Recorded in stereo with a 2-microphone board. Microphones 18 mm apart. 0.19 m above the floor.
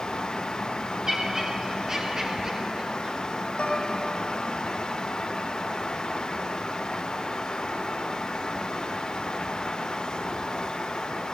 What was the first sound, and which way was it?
Laughter, 30° right (ahead or behind).